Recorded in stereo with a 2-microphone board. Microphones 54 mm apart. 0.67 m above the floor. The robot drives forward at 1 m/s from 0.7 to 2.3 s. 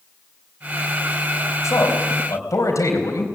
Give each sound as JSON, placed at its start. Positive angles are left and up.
{"t": 1.6, "sound": "a man speaking", "side_deg": 70, "distance_m": 4.0}